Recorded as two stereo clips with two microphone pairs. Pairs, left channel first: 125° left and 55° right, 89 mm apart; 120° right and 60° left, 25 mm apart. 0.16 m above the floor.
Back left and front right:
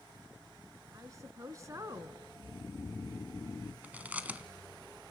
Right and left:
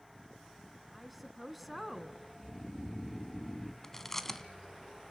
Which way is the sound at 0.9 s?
30° right.